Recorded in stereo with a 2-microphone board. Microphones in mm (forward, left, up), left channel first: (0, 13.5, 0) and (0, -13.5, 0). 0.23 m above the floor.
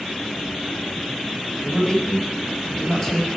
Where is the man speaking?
20° left (ahead or behind), 1.0 m.